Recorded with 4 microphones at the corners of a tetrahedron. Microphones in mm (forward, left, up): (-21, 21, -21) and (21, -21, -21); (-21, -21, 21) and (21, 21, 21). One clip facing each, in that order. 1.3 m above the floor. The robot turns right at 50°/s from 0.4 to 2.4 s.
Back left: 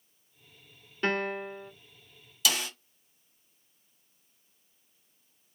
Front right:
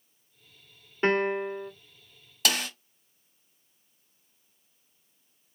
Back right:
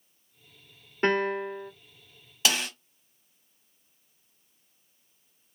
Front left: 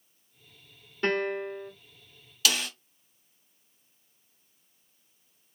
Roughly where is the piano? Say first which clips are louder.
Front right 5 dB, back right 3 dB; right.